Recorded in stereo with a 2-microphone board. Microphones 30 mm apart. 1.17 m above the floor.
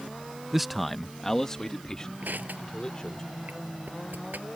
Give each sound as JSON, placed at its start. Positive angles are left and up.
{"t": 0.5, "sound": "a man speaking", "side_deg": -10}
{"t": 2.2, "sound": "crushing", "side_deg": -70}